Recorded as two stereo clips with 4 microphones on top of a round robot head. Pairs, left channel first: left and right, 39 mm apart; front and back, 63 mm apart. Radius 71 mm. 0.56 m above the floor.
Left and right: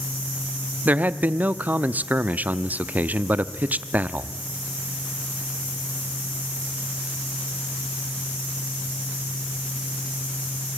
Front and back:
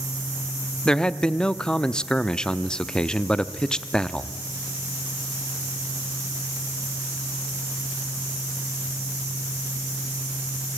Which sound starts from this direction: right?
A man speaking, at 0.8 s.